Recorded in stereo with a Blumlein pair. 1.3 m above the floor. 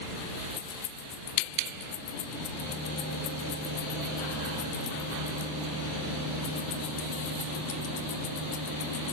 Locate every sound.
0.6 s keys jangling: 45° left, 1.7 m